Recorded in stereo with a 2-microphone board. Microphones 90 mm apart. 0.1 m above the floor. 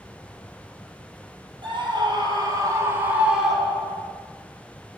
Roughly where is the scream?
Right.